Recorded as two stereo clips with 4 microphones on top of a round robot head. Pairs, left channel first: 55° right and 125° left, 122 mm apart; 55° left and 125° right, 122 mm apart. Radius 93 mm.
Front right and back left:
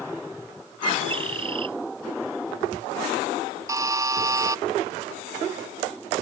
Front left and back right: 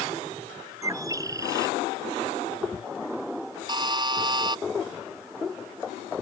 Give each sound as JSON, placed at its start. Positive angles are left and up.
{"t": 0.8, "sound": "a bird", "azimuth_deg": 170}
{"t": 3.7, "sound": "a buzzer", "azimuth_deg": -175}